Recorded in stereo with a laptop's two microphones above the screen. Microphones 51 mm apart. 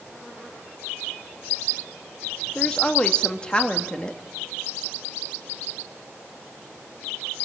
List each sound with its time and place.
2.5 s a woman speaking: 20° left (ahead or behind), 2.0 m